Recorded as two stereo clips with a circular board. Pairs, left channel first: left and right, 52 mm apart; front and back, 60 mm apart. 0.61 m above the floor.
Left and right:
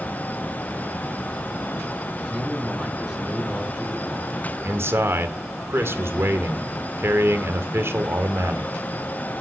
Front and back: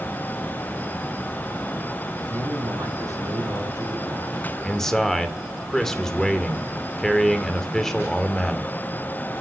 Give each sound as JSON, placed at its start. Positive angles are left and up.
{"t": 2.2, "sound": "a man speaking", "azimuth_deg": -165, "distance_m": 7.5}
{"t": 4.6, "sound": "a man speaking", "azimuth_deg": -80, "distance_m": 2.5}